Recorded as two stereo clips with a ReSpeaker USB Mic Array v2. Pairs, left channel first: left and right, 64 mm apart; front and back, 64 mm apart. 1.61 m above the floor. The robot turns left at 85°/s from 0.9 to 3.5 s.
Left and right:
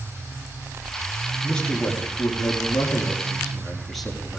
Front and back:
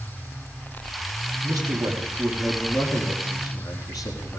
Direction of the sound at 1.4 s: Straight behind.